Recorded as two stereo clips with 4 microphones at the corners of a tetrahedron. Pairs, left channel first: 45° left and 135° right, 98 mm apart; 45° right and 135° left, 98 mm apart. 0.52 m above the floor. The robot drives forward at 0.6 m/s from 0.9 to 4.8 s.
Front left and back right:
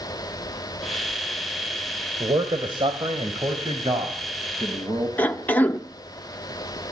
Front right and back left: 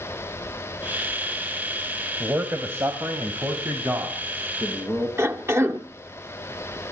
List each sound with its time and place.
2.2 s a man speaking: 155° right, 1.9 m; by 5.1 s 170° right, 3.5 m
5.2 s a cough: 105° left, 0.9 m